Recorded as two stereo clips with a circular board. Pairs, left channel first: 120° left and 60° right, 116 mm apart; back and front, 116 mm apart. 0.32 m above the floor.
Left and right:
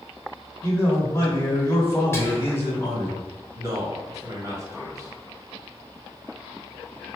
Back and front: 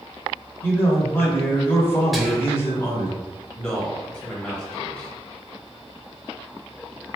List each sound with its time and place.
0.6 s a man speaking: 145° left, 1.2 m
2.1 s whispering: 90° left, 0.9 m
3.5 s a man speaking: 100° right, 1.4 m